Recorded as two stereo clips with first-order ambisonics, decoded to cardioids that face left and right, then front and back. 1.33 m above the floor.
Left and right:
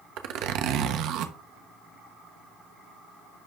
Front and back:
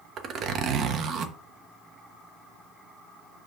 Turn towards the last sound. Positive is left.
turn(degrees=-125)